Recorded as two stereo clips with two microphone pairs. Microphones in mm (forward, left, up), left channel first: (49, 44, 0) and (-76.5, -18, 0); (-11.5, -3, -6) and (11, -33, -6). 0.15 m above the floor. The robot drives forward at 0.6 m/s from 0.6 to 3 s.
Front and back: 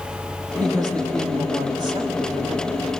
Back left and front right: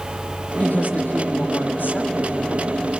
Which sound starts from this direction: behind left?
A woman speaking, at 0.6 s.